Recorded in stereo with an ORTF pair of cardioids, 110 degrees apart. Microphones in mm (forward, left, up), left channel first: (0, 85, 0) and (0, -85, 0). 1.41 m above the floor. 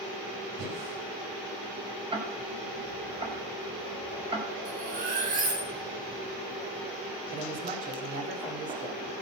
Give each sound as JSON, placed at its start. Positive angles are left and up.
{"t": 0.6, "sound": "breathing", "azimuth_deg": -70, "distance_m": 4.0}
{"t": 2.1, "sound": "ticking", "azimuth_deg": -30, "distance_m": 4.0}
{"t": 4.7, "sound": "cutlery clinking", "azimuth_deg": -50, "distance_m": 6.5}
{"t": 7.3, "sound": "a man speaking", "azimuth_deg": -50, "distance_m": 4.5}